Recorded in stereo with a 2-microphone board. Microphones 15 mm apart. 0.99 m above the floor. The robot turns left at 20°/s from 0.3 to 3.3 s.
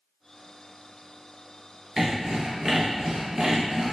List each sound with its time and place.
2.0 s sawing: 25° right (ahead or behind), 0.9 m; by 3.9 s 45° right (ahead or behind), 0.9 m